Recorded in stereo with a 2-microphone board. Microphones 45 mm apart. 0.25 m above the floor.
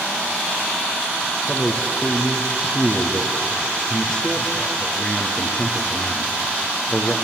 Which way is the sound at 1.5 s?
15° left (ahead or behind).